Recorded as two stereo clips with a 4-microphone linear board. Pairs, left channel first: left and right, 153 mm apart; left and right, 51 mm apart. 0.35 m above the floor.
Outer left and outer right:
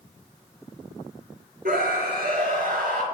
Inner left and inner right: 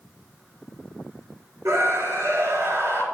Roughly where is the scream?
Right.